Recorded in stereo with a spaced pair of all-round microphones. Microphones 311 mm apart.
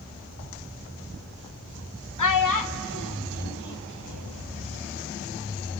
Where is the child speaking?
70° left (ahead or behind), 0.7 m; by 4.5 s 55° left (ahead or behind), 2 m.